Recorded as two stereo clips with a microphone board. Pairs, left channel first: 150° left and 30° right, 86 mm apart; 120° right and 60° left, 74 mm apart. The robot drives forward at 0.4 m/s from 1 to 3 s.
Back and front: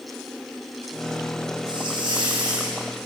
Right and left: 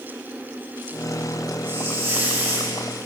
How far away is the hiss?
About 7.5 m.